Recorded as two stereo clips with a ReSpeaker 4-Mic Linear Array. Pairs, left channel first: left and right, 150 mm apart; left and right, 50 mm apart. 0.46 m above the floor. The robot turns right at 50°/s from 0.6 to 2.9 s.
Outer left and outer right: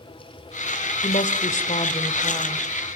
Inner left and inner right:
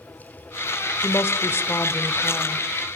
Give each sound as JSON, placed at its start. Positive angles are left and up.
{"t": 1.0, "sound": "a woman speaking", "azimuth_deg": 75, "distance_m": 1.5}